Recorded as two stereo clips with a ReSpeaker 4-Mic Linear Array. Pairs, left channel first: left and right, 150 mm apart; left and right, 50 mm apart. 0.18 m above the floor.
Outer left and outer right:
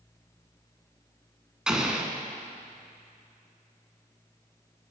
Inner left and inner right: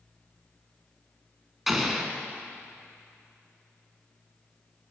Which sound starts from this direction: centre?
An explosion, at 1.7 s.